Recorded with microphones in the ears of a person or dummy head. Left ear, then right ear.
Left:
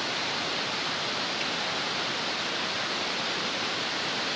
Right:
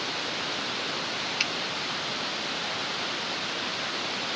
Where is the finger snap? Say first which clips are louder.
Right 3 dB; 60° right (ahead or behind), 1.0 m.